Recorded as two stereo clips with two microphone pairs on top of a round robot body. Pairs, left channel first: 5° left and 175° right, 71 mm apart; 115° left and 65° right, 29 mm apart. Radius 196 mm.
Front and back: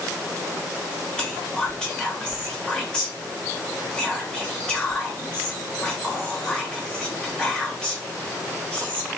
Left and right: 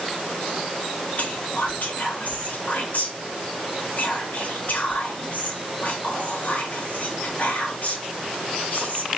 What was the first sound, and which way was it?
Whispering, 80° left.